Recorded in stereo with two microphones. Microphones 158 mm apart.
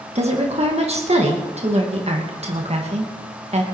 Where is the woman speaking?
45° right (ahead or behind), 2.5 m.